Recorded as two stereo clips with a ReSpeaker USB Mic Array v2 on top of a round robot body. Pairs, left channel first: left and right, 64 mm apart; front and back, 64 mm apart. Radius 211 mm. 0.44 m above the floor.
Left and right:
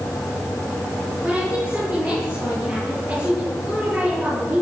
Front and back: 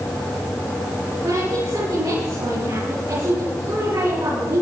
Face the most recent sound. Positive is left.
turn(degrees=-165)